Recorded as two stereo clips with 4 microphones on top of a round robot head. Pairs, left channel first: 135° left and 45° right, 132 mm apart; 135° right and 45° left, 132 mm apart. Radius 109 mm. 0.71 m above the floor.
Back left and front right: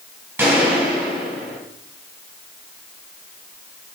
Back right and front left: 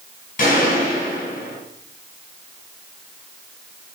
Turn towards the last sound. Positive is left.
turn(degrees=-120)